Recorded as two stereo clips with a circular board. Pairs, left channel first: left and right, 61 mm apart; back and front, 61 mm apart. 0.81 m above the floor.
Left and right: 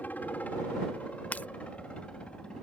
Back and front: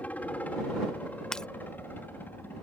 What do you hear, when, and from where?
0.0 s a helicopter: 130° left; by 2.6 s 155° left
1.3 s breaking glass: 115° left